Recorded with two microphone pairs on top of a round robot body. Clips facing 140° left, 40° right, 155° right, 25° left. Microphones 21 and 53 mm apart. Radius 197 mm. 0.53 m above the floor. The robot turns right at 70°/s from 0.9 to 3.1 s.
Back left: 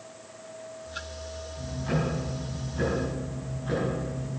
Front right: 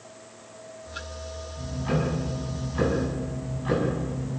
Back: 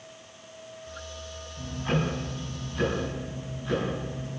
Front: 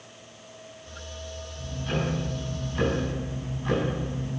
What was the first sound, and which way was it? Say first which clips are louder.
Ticking: front right 2 dB, back 2 dB; 130° right.